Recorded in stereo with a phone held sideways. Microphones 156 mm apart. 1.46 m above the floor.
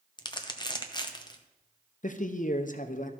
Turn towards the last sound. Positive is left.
turn(degrees=55)  # may be behind; listen again after turning